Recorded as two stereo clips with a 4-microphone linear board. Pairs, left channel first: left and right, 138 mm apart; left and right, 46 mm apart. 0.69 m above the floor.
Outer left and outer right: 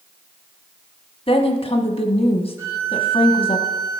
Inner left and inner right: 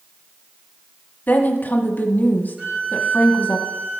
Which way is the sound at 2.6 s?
20° right (ahead or behind).